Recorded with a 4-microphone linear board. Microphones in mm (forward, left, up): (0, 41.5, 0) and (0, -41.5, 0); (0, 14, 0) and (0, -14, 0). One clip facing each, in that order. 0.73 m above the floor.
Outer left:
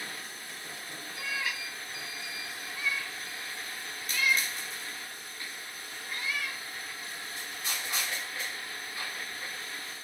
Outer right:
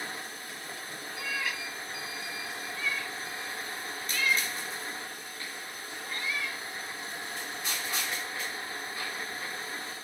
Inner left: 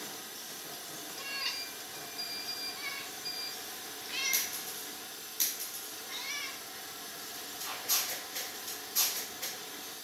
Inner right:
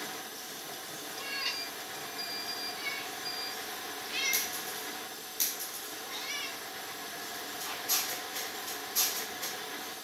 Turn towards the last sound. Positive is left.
turn(degrees=15)  # may be behind; listen again after turning